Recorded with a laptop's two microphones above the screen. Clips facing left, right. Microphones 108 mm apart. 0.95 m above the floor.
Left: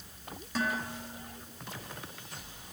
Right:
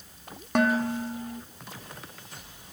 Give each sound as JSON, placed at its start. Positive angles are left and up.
{"t": 0.6, "sound": "dishes clattering", "side_deg": -60, "distance_m": 1.2}